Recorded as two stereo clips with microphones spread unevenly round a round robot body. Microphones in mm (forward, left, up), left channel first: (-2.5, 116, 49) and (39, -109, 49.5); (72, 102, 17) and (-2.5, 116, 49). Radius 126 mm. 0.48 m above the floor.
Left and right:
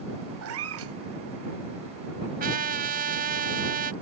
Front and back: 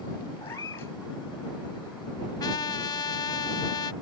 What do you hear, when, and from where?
0.4 s a cat meowing: 70° right
2.4 s a trumpet: 30° right